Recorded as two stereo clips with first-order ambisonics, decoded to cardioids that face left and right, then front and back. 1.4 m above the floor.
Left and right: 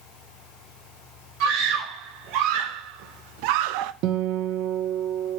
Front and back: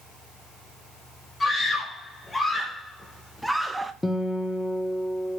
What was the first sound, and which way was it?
A scream, 75° right.